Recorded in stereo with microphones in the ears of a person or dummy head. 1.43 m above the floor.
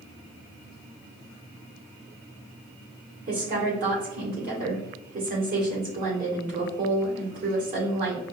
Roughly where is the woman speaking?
Right.